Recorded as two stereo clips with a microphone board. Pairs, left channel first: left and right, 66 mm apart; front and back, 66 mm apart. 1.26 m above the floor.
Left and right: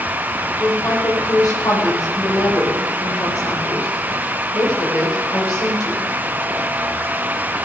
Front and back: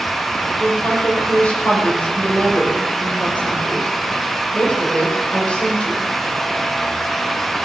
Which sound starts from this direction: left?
A woman speaking, at 0.6 s.